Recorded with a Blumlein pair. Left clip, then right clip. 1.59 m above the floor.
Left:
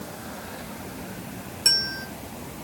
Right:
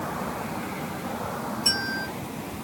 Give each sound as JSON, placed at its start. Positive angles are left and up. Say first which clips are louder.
{"t": 1.6, "sound": "a bell", "louder": "left 3 dB", "azimuth_deg": 70, "distance_m": 4.0}